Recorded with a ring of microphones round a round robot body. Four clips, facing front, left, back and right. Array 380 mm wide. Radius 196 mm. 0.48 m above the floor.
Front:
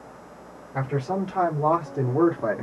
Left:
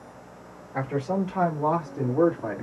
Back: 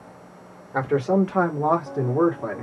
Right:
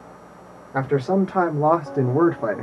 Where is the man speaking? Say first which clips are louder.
Right 7 dB, back 6 dB; 135° right, 1.5 m; by 2.6 s 75° right, 1.2 m.